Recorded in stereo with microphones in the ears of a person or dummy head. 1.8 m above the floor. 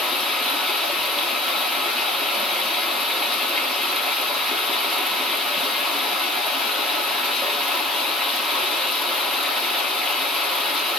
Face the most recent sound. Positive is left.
turn(degrees=0)  # may be behind; listen again after turning